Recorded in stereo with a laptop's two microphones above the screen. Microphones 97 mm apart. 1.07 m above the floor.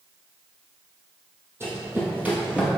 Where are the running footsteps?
30° right (ahead or behind), 2 m; by 2.7 s 5° right (ahead or behind), 1.3 m.